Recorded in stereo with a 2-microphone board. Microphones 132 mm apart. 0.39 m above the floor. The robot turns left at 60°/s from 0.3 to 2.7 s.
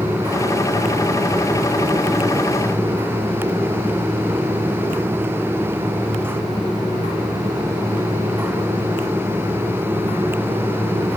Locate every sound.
Only background noise.